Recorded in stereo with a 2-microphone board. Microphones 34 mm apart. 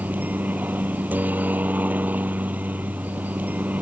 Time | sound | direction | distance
0.0 | a helicopter | 60° right (ahead or behind) | ?